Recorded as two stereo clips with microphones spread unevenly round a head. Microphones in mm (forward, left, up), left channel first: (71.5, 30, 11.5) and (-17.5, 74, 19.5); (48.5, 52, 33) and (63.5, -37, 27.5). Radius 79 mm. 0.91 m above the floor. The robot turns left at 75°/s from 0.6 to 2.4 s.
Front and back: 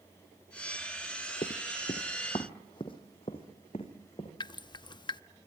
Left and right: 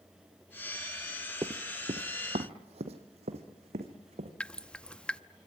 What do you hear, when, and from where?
1.4 s running footsteps: 30° right, 1.3 m; by 4.3 s 85° right, 4.5 m
4.4 s dripping: 20° left, 0.7 m